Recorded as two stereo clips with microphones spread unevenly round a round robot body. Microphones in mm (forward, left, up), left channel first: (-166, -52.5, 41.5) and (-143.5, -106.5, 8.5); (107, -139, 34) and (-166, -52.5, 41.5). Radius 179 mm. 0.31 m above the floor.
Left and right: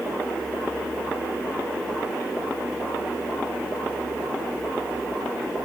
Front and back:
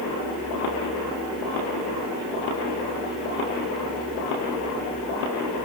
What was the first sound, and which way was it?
Only background noise.